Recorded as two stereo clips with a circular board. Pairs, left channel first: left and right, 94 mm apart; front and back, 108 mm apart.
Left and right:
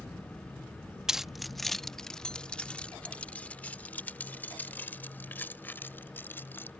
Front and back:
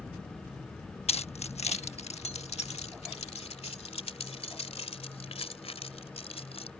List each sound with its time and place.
1.1 s keys jangling: 5° right; by 6.7 s 20° left